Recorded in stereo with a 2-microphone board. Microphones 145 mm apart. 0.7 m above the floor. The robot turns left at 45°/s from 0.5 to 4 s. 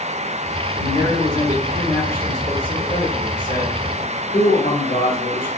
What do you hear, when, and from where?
0.7 s a man speaking: 135° right, 1.6 m; by 5.5 s 80° left, 1.6 m